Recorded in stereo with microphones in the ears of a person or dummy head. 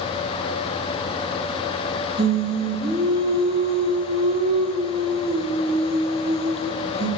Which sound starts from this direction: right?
Singing, at 2.2 s.